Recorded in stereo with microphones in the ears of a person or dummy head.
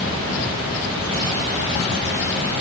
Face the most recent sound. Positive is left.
No sound to turn to.